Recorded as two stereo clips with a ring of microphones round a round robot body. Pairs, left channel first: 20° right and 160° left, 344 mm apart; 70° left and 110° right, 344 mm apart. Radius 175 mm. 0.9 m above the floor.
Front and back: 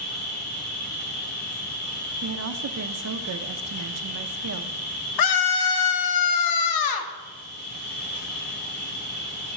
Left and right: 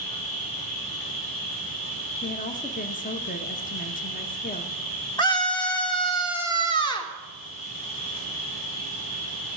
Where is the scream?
10° right, 1.6 m.